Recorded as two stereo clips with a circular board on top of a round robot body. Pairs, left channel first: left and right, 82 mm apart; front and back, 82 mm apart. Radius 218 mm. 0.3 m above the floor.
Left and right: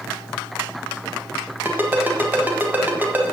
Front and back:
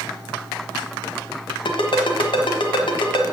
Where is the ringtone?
20° right, 1.4 m.